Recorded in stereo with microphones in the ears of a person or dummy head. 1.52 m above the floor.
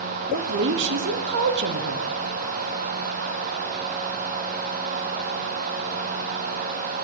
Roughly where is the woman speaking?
Right.